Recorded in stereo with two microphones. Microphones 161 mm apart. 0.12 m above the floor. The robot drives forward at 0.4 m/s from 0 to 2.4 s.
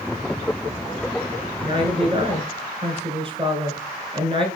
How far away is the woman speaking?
About 1.4 m.